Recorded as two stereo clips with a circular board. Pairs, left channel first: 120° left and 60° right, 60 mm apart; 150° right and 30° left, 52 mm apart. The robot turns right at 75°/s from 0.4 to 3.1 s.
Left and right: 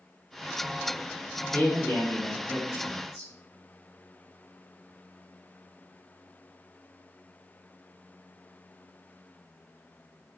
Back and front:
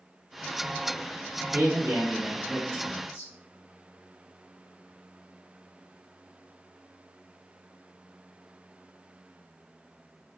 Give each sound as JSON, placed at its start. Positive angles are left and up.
{"t": 1.5, "sound": "a man speaking", "azimuth_deg": 50, "distance_m": 1.4}